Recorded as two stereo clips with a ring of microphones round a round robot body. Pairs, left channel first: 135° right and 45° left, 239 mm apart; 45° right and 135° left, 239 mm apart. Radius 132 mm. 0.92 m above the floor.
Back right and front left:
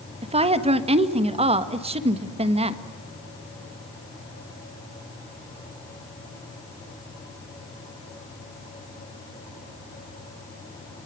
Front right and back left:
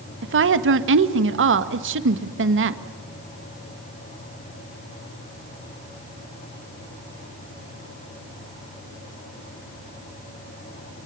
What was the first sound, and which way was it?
A woman speaking, 110° left.